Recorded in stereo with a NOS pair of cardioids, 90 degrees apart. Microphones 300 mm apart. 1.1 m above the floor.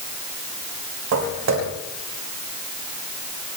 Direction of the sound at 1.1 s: 65° right.